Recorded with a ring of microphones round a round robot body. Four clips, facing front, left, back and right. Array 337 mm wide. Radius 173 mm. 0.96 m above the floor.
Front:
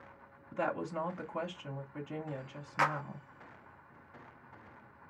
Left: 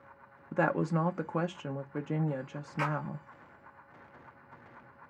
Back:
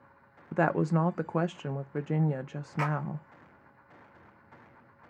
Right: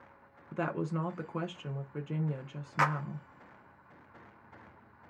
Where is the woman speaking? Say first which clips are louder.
Left 5 dB, back 8 dB; 160° left, 0.7 m.